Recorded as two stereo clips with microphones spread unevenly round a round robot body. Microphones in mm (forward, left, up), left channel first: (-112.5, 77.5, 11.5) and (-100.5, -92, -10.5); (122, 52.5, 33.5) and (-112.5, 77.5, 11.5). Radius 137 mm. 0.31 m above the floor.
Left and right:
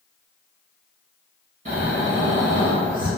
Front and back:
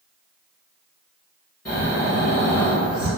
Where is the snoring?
85° right, 1.6 m.